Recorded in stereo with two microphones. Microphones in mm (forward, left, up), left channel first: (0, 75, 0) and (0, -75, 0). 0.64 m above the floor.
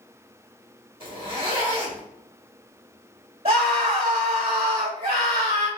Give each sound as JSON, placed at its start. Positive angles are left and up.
{"t": 1.0, "sound": "a zipper", "side_deg": -40, "distance_m": 2.5}
{"t": 3.5, "sound": "a scream", "side_deg": -40, "distance_m": 2.5}